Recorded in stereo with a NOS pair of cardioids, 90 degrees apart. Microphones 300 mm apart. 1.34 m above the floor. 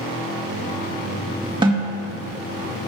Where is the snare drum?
15° right, 2.0 m.